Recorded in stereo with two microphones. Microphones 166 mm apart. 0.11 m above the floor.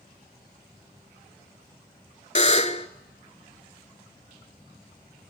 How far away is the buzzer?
About 0.8 m.